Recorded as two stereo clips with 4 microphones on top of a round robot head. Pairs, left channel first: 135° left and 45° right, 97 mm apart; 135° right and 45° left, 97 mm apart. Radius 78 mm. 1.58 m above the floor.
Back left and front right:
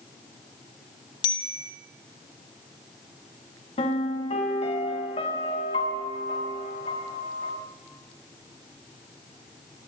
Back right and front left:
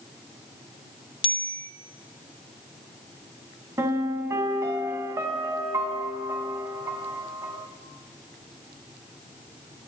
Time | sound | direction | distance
1.2 | a bicycle bell | 175° right | 2.5 m
3.8 | a piano | 105° left | 4.5 m